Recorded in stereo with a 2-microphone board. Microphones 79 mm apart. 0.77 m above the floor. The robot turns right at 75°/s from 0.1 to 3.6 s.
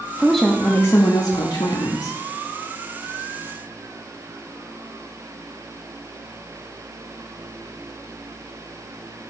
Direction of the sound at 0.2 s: 10° right.